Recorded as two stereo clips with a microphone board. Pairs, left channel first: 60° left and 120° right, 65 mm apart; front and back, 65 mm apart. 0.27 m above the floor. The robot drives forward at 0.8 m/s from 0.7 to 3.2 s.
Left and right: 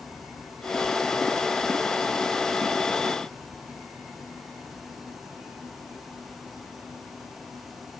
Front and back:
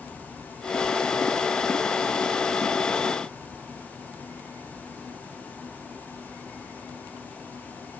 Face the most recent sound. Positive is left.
No sound to turn to.